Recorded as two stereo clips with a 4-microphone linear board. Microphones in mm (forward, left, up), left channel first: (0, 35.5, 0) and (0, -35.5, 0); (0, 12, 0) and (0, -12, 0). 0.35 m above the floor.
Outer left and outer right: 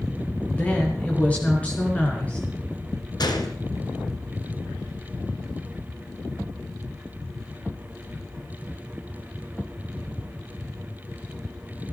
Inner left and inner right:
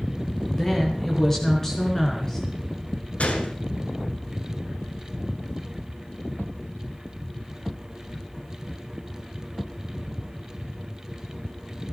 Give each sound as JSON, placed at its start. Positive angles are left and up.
{"t": 0.5, "sound": "a woman speaking", "side_deg": 20, "distance_m": 5.0}
{"t": 3.2, "sound": "a gunshot", "side_deg": 75, "distance_m": 1.9}